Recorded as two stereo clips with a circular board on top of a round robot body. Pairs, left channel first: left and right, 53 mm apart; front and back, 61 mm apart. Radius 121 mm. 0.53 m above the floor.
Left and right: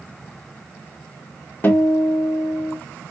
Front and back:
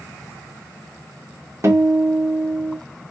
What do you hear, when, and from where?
1.6 s a guitar: 145° left, 1.2 m